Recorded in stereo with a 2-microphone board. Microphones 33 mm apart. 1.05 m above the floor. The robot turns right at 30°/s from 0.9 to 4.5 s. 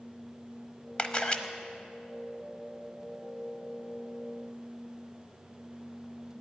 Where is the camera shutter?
30° left (ahead or behind), 1.0 m; by 1.4 s 35° left (ahead or behind), 1.0 m.